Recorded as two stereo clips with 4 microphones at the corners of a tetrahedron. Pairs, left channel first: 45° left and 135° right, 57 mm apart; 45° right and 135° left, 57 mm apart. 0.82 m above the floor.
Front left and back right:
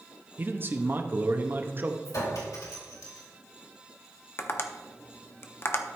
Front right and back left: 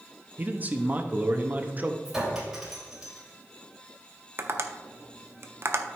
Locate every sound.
0.4 s a man speaking: 175° right, 0.8 m
2.0 s a clink: 50° left, 2.5 m
4.4 s tapping: 90° left, 0.7 m